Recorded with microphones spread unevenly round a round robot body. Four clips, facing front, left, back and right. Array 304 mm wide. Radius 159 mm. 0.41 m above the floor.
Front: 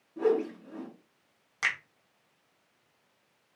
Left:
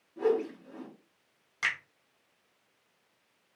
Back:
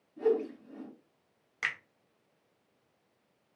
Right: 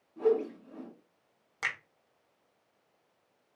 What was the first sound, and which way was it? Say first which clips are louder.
A whoosh: right 1 dB, front 2 dB; 10° left.